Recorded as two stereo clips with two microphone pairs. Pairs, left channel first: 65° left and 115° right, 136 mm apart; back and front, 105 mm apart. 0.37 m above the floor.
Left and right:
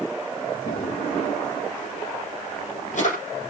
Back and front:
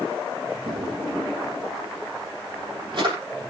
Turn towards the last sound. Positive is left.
turn(degrees=45)